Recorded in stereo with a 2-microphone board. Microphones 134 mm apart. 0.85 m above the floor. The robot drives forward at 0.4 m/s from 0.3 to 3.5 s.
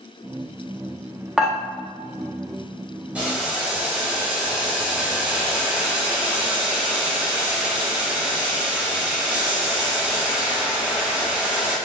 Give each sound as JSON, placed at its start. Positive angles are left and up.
{"t": 1.4, "sound": "dishes clattering", "side_deg": -5, "distance_m": 0.8}
{"t": 3.1, "sound": "boiling", "side_deg": -10, "distance_m": 1.7}